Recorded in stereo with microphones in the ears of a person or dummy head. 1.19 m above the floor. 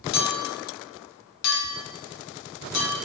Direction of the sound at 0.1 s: 75° left (ahead or behind).